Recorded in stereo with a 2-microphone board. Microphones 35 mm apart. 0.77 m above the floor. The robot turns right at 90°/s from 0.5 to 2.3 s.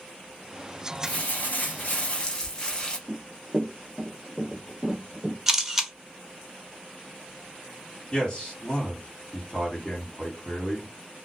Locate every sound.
1.0 s crumpling: 40° left, 0.8 m; by 3.0 s 155° left, 0.8 m
3.1 s running footsteps: 25° right (ahead or behind), 0.8 m; by 5.4 s 15° right (ahead or behind), 1.5 m
5.5 s a camera shutter: 10° right (ahead or behind), 0.6 m
8.1 s a man speaking: 25° left (ahead or behind), 1.7 m